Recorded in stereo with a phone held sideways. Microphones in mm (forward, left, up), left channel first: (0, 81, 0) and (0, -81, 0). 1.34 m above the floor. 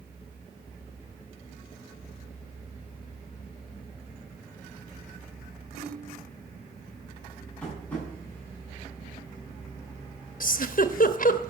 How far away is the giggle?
About 1.0 m.